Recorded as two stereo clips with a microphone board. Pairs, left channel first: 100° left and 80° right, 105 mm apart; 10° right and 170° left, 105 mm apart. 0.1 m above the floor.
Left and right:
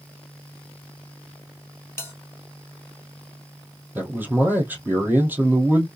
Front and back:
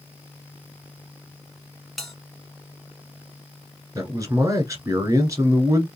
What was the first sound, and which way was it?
A bell, 75° left.